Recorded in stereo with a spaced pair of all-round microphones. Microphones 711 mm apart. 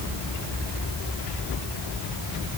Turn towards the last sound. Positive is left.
No sound to turn to.